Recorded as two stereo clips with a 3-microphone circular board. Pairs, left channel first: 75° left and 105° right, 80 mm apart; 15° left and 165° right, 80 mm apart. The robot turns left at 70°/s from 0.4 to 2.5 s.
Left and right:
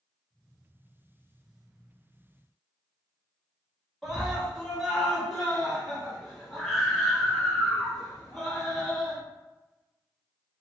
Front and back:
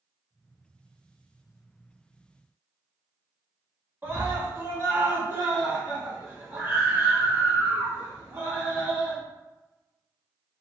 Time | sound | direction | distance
4.0 | a scream | 170° left | 1.2 m